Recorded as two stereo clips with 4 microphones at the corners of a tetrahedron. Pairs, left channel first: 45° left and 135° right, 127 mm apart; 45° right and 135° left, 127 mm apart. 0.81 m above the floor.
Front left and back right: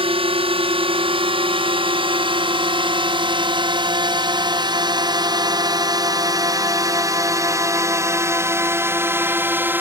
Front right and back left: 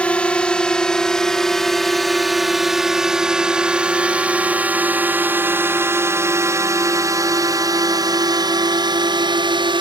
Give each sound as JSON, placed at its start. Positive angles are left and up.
{"t": 0.0, "sound": "a drone", "azimuth_deg": -120}